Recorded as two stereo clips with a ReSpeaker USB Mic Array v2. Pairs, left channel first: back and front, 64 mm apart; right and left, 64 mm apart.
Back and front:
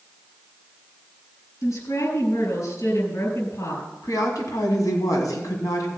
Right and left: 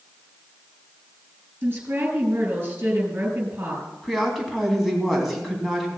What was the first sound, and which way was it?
A woman speaking, 145° left.